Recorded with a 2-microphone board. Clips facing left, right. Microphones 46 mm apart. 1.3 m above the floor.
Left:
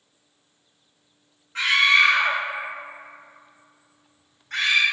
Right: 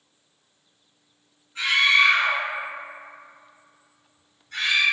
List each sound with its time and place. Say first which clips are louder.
1.6 s a scream: left 1 dB; 75° left (ahead or behind), 0.7 m